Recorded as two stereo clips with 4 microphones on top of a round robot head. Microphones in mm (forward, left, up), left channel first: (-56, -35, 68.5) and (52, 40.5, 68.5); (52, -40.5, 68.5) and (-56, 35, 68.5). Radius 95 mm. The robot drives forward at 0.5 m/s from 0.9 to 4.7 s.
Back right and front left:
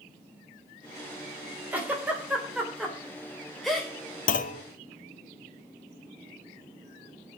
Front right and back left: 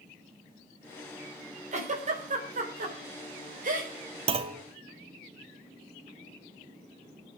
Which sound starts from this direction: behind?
A clunk, at 4.3 s.